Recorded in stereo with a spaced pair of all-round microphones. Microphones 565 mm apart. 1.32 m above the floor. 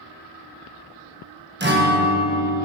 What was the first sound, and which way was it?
A guitar, 20° right (ahead or behind).